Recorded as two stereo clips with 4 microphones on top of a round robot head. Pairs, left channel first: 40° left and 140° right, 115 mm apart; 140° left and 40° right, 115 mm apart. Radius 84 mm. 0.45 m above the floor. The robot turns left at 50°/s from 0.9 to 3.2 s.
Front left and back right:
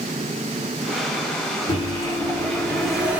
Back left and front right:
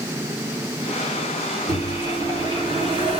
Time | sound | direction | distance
1.7 | a microwave | 10° left | 1.5 m